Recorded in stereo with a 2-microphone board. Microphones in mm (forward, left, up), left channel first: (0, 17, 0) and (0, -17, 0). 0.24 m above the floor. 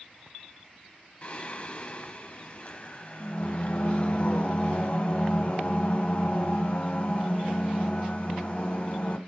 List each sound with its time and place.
1.2 s singing: 40° left (ahead or behind), 1.0 m